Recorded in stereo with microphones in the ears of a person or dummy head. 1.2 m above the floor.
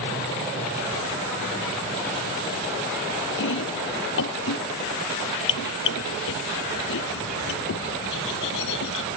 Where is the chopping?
75° left (ahead or behind).